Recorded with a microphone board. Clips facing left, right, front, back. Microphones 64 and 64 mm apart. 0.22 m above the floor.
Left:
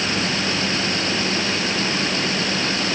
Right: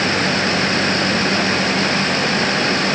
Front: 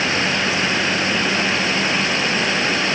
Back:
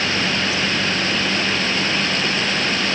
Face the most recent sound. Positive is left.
No sound to turn to.